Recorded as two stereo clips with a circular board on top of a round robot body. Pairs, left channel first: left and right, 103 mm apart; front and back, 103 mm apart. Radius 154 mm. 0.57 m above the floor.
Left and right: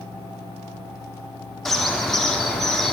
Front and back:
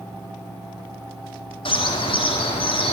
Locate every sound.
1.6 s a bird: 5° left, 1.8 m